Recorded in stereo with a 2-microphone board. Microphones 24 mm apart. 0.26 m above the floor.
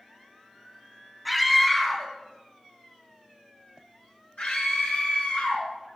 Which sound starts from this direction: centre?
A scream, at 1.2 s.